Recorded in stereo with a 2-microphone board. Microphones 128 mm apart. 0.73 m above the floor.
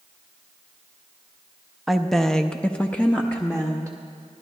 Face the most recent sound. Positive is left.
turn(degrees=10)  # may be behind; listen again after turning